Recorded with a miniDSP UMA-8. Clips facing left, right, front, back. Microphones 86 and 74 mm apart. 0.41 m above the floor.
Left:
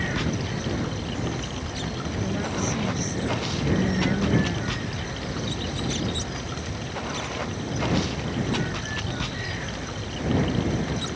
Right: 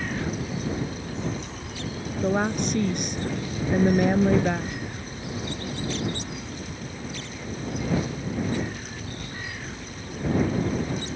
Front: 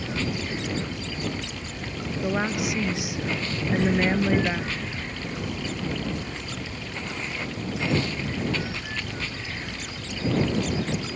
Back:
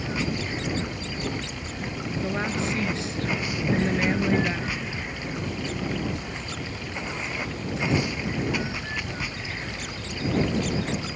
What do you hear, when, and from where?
0.0 s running water: 105° left
2.2 s a woman speaking: 75° right